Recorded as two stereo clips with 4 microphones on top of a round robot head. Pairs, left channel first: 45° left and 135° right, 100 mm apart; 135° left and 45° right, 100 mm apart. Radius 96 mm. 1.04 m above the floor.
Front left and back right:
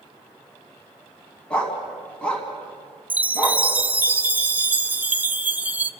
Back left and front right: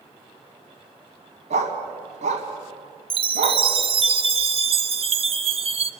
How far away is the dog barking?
About 3 m.